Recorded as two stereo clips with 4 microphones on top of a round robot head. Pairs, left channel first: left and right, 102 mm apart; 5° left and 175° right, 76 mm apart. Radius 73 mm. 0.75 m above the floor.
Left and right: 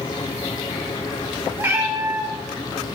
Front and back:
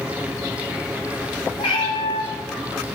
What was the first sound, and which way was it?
A cat meowing, 25° right.